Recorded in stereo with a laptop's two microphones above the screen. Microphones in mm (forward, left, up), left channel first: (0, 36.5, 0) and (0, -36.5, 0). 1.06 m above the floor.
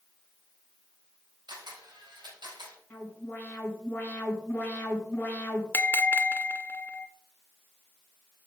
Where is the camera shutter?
90° right, 4.5 m.